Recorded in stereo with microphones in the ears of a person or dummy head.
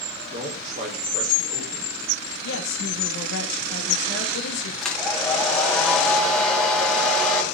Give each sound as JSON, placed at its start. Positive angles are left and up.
{"t": 0.3, "sound": "a man speaking", "side_deg": -40, "distance_m": 4.5}
{"t": 2.4, "sound": "a woman speaking", "side_deg": 80, "distance_m": 2.0}
{"t": 4.8, "sound": "a hair dryer", "side_deg": 0, "distance_m": 2.5}